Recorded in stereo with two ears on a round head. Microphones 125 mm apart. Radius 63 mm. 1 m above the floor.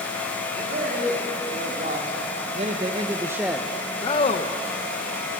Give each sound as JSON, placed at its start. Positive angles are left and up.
{"t": 0.5, "sound": "a man speaking", "side_deg": -70, "distance_m": 3.0}